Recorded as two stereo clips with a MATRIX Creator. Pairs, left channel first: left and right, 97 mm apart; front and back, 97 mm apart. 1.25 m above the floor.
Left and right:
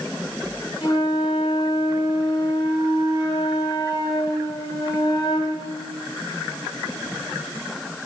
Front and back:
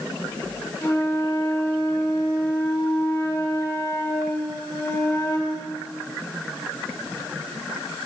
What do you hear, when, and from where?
0.8 s a flute: 50° left, 2.5 m